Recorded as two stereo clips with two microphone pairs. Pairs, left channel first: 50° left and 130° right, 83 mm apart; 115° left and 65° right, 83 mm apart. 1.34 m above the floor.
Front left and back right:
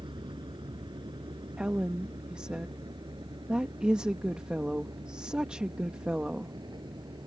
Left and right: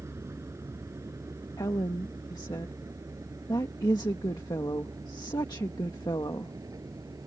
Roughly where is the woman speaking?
Behind left.